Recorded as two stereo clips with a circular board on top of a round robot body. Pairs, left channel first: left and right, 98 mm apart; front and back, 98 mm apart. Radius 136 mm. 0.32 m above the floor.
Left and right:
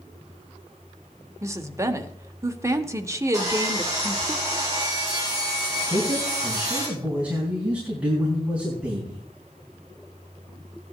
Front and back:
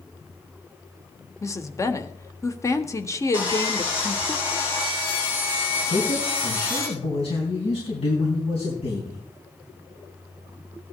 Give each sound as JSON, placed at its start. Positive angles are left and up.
{"t": 1.4, "sound": "a woman speaking", "azimuth_deg": -45, "distance_m": 1.5}
{"t": 3.3, "sound": "sawing", "azimuth_deg": -35, "distance_m": 4.5}
{"t": 5.9, "sound": "a man speaking", "azimuth_deg": -15, "distance_m": 3.5}